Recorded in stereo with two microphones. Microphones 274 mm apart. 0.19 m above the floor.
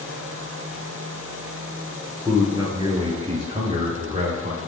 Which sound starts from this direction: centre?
A man speaking, at 2.2 s.